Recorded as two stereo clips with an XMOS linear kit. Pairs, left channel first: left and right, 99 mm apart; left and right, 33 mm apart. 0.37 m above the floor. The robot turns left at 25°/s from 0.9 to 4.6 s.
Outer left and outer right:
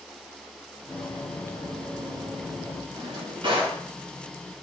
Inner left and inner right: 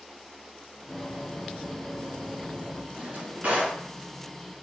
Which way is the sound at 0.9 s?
20° left (ahead or behind).